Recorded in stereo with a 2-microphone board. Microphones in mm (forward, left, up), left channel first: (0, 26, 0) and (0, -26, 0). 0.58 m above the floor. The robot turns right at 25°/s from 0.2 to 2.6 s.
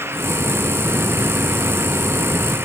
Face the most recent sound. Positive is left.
No sound to turn to.